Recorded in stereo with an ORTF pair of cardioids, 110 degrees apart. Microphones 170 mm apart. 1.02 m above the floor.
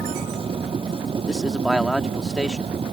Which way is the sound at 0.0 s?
30° right.